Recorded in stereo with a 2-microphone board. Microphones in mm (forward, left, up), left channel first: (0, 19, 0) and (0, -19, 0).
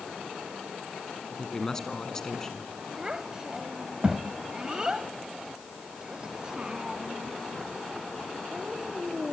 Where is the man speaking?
15° left (ahead or behind), 2.5 m.